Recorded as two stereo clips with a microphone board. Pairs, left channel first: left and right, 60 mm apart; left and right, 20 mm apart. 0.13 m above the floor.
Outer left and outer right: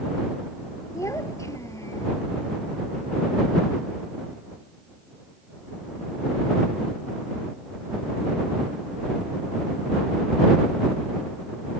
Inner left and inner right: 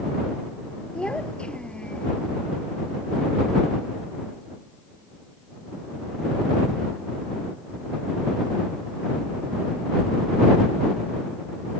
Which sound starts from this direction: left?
A child speaking, at 0.9 s.